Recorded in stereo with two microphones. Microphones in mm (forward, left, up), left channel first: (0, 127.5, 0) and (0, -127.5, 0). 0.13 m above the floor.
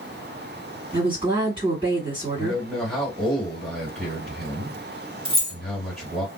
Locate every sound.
0.9 s a woman speaking: 20° right (ahead or behind), 1.8 m
2.4 s a man speaking: centre (ahead or behind), 1.9 m
5.2 s keys jangling: 20° right (ahead or behind), 0.7 m